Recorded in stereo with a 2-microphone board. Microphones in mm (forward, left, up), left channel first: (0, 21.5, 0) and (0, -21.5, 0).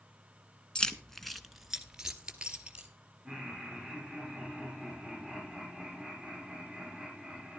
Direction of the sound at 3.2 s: 5° left (ahead or behind).